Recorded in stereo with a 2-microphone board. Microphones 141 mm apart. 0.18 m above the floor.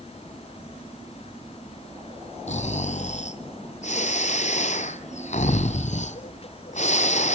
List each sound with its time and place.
2.5 s snoring: 55° left (ahead or behind), 1.1 m